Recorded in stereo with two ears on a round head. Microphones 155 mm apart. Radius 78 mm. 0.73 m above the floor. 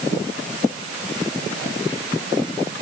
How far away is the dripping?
No dripping in this recording.